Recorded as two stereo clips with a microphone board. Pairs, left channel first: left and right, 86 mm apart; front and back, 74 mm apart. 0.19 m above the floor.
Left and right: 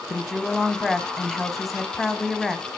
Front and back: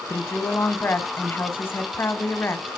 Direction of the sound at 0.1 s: Straight ahead.